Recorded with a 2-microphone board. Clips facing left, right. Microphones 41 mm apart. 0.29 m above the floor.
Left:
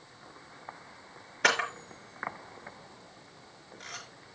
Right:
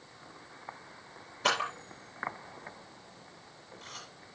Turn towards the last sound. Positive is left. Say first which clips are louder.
# left 3 dB
turn(degrees=75)  # may be behind; listen again after turning